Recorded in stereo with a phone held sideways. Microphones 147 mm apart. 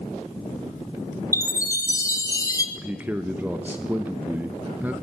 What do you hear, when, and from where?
1.3 s a chime: 20° left (ahead or behind), 0.9 m
2.8 s a man speaking: 10° right (ahead or behind), 0.6 m